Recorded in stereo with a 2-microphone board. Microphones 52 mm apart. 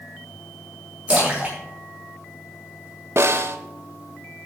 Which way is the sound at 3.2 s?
55° right (ahead or behind).